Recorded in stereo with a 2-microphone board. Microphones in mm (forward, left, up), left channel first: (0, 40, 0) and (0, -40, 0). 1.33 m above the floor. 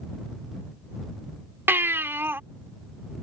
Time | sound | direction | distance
1.7 | a baby crying | 30° right (ahead or behind) | ?